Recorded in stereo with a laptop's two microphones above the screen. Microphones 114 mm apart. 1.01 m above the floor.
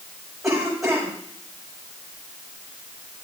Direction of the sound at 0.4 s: 5° right (ahead or behind).